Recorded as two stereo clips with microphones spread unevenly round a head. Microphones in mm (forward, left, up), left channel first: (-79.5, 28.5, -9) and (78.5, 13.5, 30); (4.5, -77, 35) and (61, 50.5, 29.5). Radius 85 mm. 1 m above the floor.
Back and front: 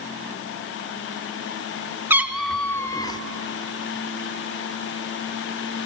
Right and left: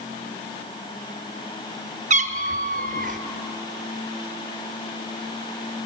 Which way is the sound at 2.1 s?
50° left.